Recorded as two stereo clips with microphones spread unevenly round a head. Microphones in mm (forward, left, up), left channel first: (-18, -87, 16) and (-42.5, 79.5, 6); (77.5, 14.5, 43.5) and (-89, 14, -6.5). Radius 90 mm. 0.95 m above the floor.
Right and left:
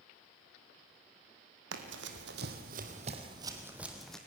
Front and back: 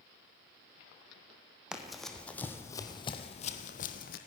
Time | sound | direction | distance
1.7 | running footsteps | 85° left | 2.5 m